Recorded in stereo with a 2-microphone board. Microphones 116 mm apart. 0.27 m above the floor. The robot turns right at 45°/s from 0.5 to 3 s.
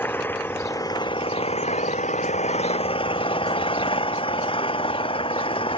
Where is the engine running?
20° left; by 5.8 s 130° left.